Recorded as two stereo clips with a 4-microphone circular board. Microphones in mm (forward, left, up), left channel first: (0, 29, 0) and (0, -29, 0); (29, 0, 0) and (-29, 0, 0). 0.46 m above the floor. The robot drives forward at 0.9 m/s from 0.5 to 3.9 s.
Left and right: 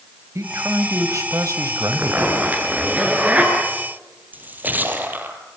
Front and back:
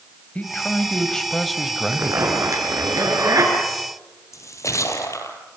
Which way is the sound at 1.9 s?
150° right.